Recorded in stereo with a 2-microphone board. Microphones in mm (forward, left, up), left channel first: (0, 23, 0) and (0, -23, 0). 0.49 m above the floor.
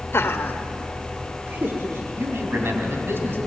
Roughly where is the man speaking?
Right.